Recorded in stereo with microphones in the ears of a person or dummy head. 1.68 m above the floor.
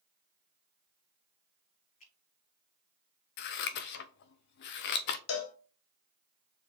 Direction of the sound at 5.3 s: 85° left.